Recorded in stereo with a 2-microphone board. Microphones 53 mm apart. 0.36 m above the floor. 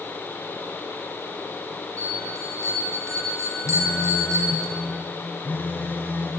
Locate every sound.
2.0 s a bell: 80° right, 6.5 m
3.6 s a phone buzzing: 35° left (ahead or behind), 3.5 m